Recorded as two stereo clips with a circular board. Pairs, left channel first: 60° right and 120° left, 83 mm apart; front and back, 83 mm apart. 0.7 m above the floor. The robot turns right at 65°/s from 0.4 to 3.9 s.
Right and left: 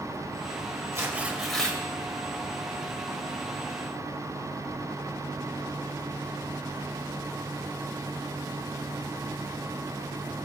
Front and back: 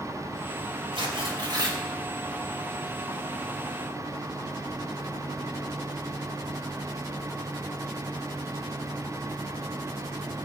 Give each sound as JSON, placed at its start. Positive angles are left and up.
{"t": 0.9, "sound": "tearing paper", "azimuth_deg": 175, "distance_m": 2.0}